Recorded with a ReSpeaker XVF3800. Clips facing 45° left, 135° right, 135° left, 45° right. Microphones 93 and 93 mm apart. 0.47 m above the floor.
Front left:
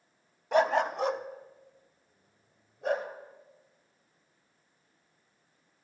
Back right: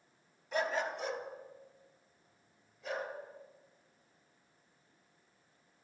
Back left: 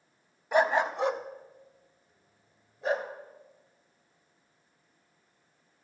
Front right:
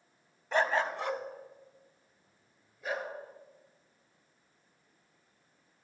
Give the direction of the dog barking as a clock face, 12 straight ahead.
10 o'clock.